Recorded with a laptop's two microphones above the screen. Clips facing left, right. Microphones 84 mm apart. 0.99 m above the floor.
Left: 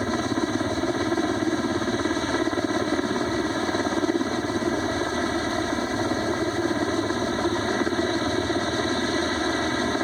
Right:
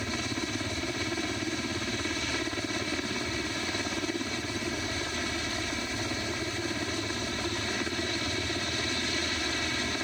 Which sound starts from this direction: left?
A helicopter, at 0.0 s.